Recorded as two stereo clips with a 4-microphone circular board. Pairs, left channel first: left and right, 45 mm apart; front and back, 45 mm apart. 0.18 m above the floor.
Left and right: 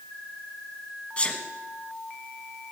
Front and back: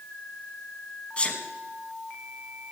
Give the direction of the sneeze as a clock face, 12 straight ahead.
10 o'clock.